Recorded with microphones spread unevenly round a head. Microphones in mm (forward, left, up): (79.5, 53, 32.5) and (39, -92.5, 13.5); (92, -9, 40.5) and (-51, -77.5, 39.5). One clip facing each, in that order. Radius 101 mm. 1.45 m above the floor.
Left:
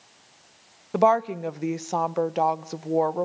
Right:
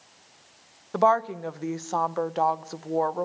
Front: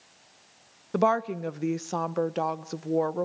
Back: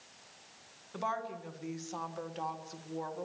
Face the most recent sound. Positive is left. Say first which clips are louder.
# left 2 dB, front 13 dB
turn(degrees=5)